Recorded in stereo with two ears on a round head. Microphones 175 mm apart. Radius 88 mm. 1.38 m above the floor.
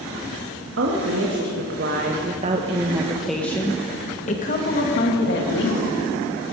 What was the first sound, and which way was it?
A woman speaking, 65° right (ahead or behind).